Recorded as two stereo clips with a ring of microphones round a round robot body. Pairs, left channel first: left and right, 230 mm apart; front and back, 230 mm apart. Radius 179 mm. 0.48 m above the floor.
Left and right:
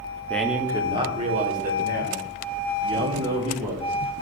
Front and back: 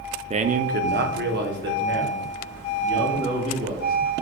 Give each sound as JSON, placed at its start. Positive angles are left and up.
{"t": 0.3, "sound": "a man speaking", "azimuth_deg": 165, "distance_m": 0.8}